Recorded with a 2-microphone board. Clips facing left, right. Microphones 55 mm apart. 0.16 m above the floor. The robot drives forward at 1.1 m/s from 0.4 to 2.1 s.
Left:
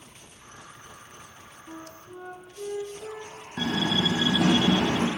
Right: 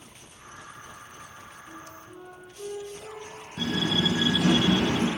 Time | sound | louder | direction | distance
1.7 | a flute | left 5 dB | 40° left (ahead or behind) | 1.4 m
3.6 | a door slam | left 1 dB | 80° left | 3.5 m